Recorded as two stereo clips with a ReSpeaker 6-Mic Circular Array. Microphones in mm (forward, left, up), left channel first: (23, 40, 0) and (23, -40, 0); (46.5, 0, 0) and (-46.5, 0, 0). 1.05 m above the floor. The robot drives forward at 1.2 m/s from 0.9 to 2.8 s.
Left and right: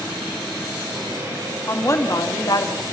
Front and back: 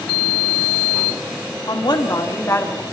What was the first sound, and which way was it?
A woman speaking, 35° left.